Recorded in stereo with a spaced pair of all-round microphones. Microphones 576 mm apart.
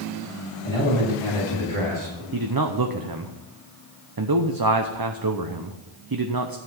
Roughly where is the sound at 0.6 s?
Left.